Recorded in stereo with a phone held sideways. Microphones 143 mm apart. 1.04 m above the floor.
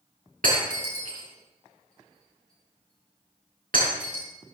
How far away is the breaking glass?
About 6 m.